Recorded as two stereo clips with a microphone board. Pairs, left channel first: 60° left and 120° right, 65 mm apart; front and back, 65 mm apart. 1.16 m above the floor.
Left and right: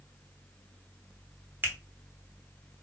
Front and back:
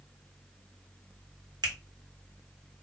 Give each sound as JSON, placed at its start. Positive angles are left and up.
{"t": 1.6, "sound": "a finger snap", "azimuth_deg": 180, "distance_m": 0.9}